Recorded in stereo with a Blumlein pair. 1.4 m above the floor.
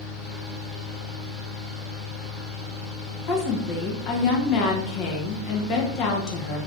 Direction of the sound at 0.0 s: 20° left.